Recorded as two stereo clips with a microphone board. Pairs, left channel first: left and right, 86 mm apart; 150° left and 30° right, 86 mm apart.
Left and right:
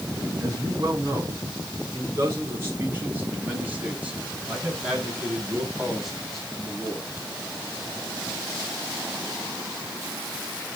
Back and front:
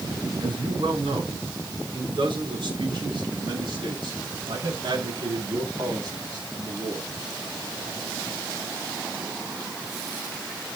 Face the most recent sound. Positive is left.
turn(degrees=10)